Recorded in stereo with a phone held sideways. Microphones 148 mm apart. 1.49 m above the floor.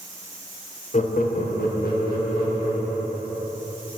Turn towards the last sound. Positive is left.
turn(degrees=80)